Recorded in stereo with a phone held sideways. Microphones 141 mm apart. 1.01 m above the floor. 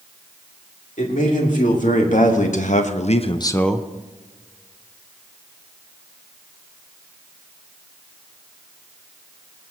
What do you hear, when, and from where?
1.0 s a man speaking: 75° left (ahead or behind), 2.5 m; by 3.9 s 10° right (ahead or behind), 0.6 m